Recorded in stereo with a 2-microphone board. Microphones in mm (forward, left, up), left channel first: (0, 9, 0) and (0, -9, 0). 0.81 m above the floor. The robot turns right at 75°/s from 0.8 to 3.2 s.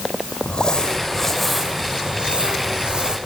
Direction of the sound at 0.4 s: 125° left.